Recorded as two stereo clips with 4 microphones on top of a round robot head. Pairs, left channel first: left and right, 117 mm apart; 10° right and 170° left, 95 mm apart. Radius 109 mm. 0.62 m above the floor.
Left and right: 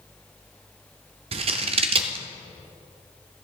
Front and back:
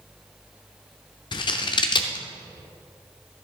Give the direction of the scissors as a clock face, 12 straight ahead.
2 o'clock.